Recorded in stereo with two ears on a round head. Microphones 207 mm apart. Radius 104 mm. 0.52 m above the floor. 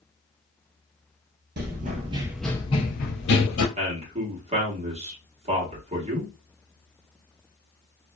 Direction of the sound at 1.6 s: 45° right (ahead or behind).